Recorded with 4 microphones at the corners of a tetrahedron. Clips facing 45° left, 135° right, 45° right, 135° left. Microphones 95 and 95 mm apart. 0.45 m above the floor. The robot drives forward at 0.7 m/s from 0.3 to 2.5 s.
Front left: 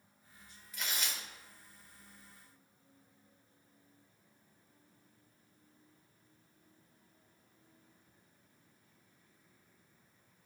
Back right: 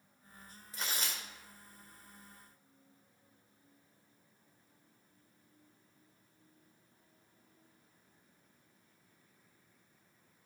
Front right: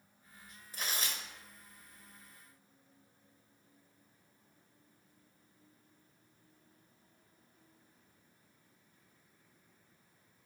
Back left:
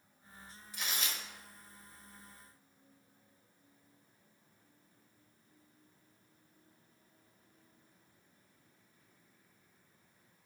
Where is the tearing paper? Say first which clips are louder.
Even, front right 1 dB; 80° right, 1.4 m; by 1.2 s 100° right, 1.4 m.